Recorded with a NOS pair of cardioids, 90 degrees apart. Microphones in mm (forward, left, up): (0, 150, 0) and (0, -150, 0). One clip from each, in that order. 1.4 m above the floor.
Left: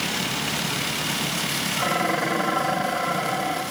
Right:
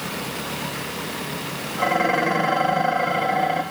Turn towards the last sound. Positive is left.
turn(degrees=-20)